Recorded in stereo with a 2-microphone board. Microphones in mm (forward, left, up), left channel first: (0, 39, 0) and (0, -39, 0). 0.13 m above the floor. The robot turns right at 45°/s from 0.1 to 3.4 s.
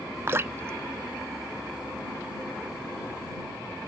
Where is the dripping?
35° right (ahead or behind); by 2.0 s 20° right (ahead or behind).